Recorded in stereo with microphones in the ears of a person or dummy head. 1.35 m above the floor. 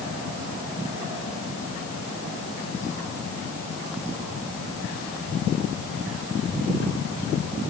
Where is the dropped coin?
I don't hear a dropped coin.